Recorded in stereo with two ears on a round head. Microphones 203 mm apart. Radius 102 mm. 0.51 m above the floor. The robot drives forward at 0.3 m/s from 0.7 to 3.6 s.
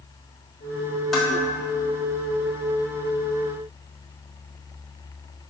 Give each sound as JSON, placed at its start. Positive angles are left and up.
{"t": 1.1, "sound": "dishes clattering", "side_deg": 0, "distance_m": 1.4}